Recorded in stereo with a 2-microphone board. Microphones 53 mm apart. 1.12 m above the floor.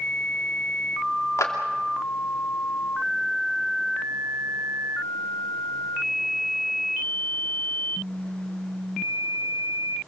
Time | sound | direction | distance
1.4 | a clap | 70° left (ahead or behind) | 3 m